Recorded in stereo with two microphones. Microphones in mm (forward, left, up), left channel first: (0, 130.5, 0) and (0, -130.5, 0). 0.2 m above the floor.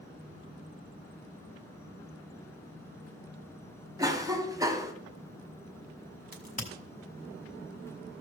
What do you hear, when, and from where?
4.0 s a cough: 15° right (ahead or behind), 1.2 m
6.3 s a crack: 30° left (ahead or behind), 1.9 m